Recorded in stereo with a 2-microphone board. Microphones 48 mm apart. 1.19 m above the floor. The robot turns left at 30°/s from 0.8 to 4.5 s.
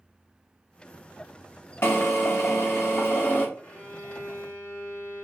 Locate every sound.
1.8 s a drill: 105° left, 1.3 m; by 3.5 s 60° left, 1.3 m
3.6 s a violin: 45° left (ahead or behind), 2 m; by 5.2 s 65° left (ahead or behind), 2 m